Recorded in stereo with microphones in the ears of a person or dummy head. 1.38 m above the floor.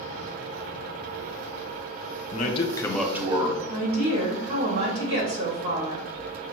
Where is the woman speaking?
75° right (ahead or behind), 1.7 m.